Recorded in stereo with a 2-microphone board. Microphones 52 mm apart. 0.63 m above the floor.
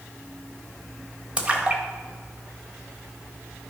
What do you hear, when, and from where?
1.4 s a splash: 20° right (ahead or behind), 1.2 m